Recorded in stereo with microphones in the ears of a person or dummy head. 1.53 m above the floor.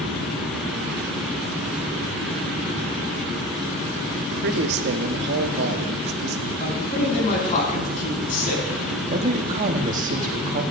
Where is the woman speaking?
40° right (ahead or behind), 1.0 m.